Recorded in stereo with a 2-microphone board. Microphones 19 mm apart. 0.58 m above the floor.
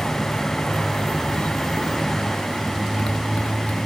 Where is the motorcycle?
75° left (ahead or behind); by 3.9 s 80° left.